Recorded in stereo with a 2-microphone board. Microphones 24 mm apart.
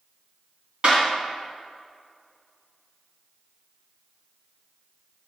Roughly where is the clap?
Right.